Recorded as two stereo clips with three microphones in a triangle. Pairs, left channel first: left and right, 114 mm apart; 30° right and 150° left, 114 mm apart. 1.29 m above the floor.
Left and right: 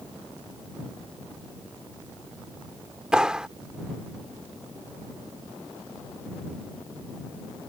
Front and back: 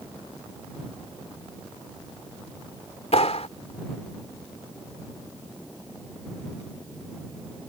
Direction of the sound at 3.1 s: 5° right.